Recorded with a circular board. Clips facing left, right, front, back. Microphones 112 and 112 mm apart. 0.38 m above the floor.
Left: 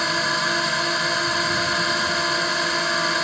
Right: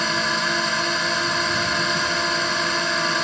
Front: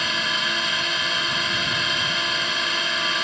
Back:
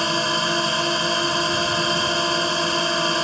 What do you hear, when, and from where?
0.0 s a drone: 175° left